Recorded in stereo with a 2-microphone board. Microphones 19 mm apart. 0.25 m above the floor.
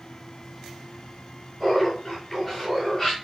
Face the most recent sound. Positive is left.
turn(degrees=-5)  # may be behind; listen again after turning